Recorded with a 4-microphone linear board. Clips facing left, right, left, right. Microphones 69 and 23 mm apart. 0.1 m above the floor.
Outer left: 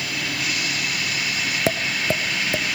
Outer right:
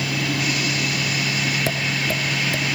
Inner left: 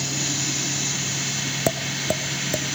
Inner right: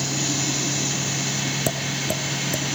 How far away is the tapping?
About 0.7 m.